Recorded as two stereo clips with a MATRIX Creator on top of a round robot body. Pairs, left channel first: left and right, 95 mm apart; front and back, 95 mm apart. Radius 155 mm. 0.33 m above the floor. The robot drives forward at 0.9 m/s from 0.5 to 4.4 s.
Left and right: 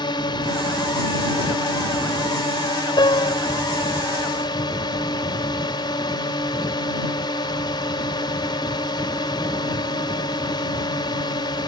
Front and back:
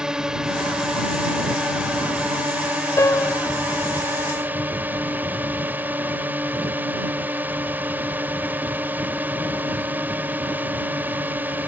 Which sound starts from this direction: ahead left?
A piano, at 3.0 s.